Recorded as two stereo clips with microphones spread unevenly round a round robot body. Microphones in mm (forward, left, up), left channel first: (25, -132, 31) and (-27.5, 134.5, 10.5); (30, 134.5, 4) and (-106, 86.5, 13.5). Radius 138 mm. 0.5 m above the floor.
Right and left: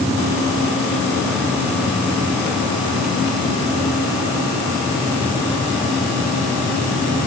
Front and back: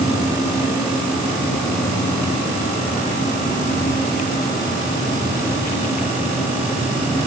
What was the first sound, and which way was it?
Only background noise.